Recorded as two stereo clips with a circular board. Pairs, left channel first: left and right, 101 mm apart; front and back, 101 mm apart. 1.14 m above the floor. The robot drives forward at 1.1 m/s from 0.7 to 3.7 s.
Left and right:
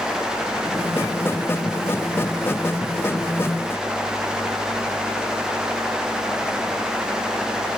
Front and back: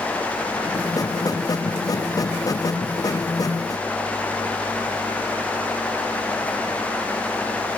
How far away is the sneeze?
I don't hear a sneeze.